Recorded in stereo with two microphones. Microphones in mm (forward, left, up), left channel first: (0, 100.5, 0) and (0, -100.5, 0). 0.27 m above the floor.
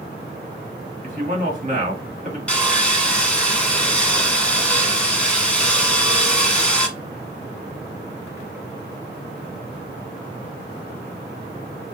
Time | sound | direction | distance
1.0 | a man speaking | 45° right (ahead or behind) | 2.0 m
2.5 | sawing | 5° left (ahead or behind) | 1.3 m